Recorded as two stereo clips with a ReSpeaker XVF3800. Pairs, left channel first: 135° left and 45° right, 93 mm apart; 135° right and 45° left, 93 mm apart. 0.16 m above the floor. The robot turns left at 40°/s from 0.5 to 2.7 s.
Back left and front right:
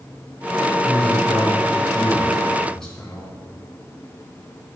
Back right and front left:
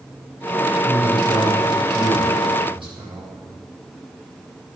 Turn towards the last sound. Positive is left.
turn(degrees=50)